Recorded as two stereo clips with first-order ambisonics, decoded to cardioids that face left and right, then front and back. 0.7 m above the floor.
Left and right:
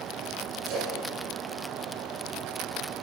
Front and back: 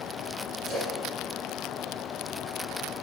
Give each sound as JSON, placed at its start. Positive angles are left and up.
{"t": 0.7, "sound": "a splash", "azimuth_deg": -115, "distance_m": 7.0}